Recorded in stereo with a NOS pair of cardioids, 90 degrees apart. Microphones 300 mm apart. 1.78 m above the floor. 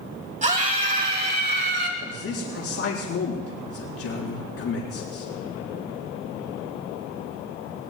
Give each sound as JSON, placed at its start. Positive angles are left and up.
{"t": 0.4, "sound": "a scream", "azimuth_deg": -25, "distance_m": 4.0}
{"t": 2.0, "sound": "a man speaking", "azimuth_deg": 50, "distance_m": 6.0}